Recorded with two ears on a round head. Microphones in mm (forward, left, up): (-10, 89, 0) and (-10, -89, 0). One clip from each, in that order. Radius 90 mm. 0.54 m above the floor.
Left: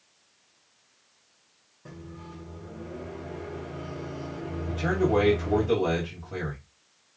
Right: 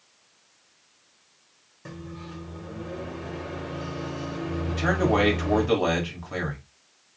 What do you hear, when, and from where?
1.9 s a microwave: 65° right (ahead or behind), 1.3 m
4.7 s a man speaking: 45° right (ahead or behind), 1.6 m